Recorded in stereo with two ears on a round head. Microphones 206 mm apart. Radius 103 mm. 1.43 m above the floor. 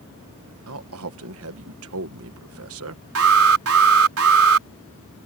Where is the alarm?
70° right (ahead or behind).